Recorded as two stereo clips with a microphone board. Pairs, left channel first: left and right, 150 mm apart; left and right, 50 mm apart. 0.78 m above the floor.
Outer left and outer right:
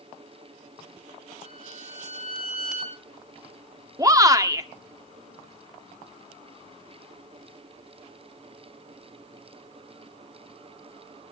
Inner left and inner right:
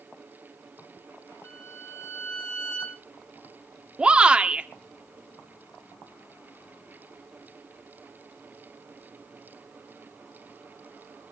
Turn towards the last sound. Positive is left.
turn(degrees=-25)  # may be behind; listen again after turning